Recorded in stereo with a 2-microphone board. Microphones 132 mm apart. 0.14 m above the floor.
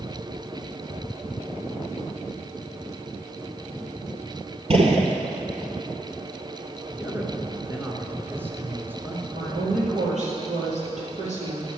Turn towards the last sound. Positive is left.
turn(degrees=-65)  # may be behind; listen again after turning